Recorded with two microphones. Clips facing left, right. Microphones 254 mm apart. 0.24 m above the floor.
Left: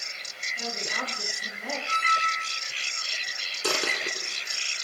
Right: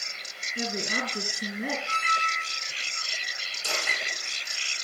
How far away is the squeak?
About 8.5 m.